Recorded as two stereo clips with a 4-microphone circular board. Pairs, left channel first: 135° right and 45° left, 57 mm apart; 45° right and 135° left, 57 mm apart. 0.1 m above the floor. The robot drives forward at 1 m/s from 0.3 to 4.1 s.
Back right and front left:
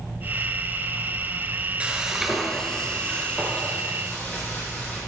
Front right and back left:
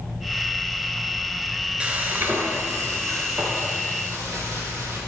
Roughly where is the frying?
Left.